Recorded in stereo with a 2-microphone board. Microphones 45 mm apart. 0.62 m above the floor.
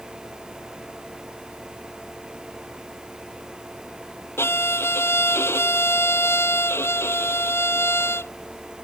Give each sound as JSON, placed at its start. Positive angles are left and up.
{"t": 4.4, "sound": "a violin", "side_deg": 65}